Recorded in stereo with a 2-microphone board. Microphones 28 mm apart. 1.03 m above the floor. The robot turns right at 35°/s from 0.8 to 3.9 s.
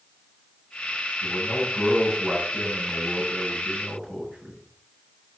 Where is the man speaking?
170° left, 7 m; by 4.6 s 95° right, 7 m.